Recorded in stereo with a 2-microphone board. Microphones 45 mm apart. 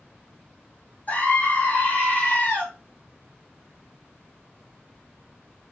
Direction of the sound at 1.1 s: 40° left (ahead or behind).